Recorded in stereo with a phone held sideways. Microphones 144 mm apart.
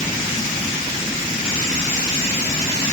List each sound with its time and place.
Only background noise.